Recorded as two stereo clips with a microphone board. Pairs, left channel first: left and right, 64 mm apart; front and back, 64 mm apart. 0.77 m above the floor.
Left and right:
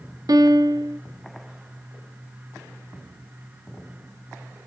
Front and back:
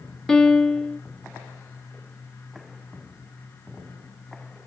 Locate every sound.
0.3 s a piano: 80° right, 0.6 m